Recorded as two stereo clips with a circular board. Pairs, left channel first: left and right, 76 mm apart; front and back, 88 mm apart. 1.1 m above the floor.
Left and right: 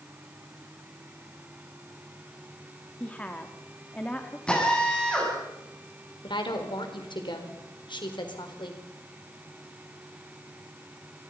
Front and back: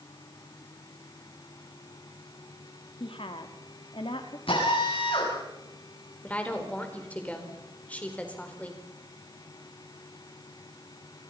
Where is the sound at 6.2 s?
75° left, 4 m.